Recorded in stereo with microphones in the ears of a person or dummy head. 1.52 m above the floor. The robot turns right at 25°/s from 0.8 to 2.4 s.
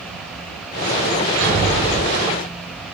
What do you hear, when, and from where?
1.4 s a thud: 60° right (ahead or behind), 4 m; by 2.1 s 75° right (ahead or behind), 4 m